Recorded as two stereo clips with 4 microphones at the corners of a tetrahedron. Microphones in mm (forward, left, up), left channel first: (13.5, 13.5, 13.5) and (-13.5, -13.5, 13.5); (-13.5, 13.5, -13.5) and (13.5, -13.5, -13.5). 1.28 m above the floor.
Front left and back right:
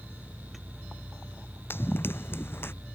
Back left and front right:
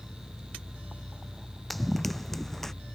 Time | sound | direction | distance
1.7 | running footsteps | 45° left | ?